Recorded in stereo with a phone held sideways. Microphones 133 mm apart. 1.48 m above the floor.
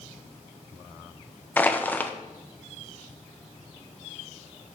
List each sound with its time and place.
1.6 s crushing: 15° left (ahead or behind), 0.8 m